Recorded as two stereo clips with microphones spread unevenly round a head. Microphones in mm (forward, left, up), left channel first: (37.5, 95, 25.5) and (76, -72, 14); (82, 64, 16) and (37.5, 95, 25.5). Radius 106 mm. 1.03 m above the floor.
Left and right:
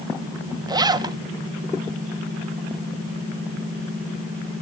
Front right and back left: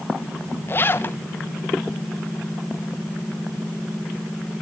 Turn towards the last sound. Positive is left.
turn(degrees=-20)